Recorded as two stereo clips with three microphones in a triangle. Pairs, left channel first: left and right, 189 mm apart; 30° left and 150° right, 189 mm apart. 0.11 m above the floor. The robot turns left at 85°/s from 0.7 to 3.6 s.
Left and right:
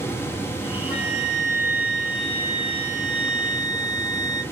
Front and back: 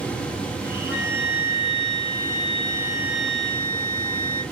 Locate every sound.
0.9 s a flute: 65° right, 1.5 m; by 4.4 s 65° left, 1.5 m